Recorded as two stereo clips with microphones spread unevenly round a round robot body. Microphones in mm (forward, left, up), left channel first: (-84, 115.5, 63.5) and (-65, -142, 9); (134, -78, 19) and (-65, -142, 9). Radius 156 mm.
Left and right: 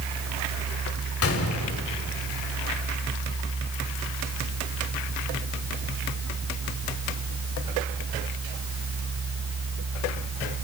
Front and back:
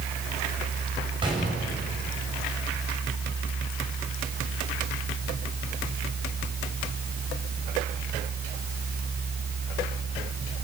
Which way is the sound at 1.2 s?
125° left.